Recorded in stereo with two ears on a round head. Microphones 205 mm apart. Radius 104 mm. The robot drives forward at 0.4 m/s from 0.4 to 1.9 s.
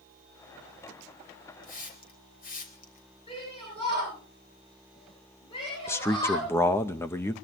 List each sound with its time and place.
1.6 s a hiss: 45° left (ahead or behind), 3.5 m
3.3 s a shout: 25° left (ahead or behind), 9.5 m
5.9 s a man speaking: 10° left (ahead or behind), 0.6 m